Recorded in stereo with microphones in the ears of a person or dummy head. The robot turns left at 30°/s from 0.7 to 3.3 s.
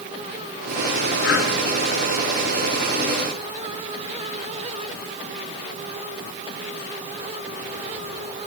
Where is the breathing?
80° left, 9 m; by 1.5 s 85° left, 9 m.